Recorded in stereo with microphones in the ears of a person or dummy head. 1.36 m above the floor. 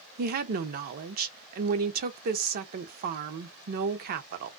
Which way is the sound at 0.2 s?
50° right (ahead or behind).